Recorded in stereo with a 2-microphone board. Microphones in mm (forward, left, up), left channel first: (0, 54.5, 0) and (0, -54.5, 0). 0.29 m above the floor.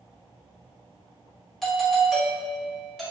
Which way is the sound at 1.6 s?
Centre (ahead or behind).